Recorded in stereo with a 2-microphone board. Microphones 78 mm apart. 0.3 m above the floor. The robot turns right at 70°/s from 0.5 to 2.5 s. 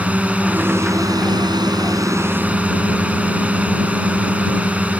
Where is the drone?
160° right; by 5.0 s 20° right.